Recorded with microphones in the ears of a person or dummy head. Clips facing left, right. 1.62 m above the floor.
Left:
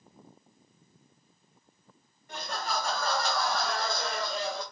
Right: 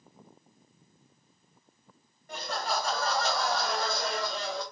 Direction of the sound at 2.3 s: 55° right (ahead or behind).